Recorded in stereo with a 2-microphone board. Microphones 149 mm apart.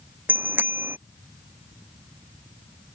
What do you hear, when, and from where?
0.3 s a bicycle bell: 15° right (ahead or behind)